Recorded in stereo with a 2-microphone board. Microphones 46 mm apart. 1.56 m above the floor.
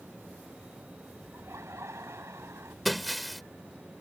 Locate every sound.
1.3 s laughter: 80° right; by 2.8 s 70° right (ahead or behind)
2.9 s breaking glass: centre (ahead or behind)